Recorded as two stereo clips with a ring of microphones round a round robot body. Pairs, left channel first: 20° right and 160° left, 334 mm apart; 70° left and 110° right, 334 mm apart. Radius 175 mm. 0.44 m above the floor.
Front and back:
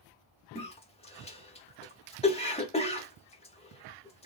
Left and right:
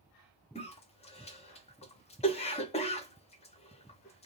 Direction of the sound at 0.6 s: 25° left.